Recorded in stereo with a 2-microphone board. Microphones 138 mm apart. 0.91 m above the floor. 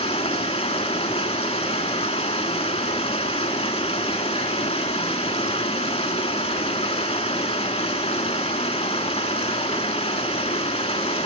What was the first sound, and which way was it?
Running water, 45° left (ahead or behind).